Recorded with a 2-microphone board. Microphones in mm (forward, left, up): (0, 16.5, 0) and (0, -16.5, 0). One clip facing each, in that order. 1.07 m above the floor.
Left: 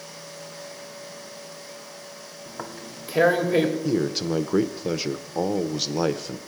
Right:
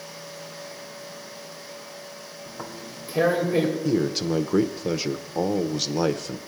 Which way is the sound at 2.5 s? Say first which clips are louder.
Left 1 dB; 70° left (ahead or behind).